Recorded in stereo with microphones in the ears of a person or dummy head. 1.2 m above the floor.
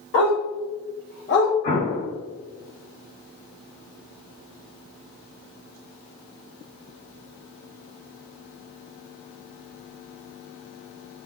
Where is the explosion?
40° left (ahead or behind), 1.8 m.